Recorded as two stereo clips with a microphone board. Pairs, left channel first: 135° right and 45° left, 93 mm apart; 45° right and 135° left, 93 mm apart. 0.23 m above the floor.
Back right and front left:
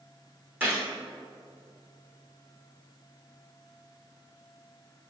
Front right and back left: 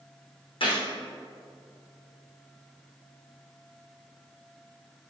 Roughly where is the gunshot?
Ahead right.